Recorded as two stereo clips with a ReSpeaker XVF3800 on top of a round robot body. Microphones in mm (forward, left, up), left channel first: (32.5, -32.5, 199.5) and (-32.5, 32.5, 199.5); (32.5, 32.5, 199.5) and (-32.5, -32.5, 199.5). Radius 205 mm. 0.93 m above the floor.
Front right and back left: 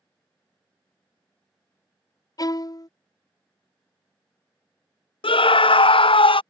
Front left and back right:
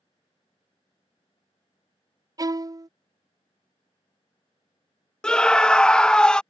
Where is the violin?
90° right.